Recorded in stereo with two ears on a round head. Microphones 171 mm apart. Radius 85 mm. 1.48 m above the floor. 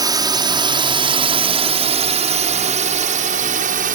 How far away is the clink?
No clink in this recording.